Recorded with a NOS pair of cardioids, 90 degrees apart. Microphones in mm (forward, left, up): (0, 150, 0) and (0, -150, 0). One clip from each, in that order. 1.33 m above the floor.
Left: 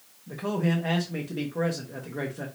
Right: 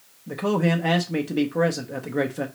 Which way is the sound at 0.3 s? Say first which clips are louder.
Right 6 dB; 35° right.